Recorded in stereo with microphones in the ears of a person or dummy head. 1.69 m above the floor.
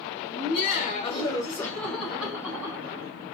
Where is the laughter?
65° left (ahead or behind), 1.2 m; by 3.1 s 15° right (ahead or behind), 2 m.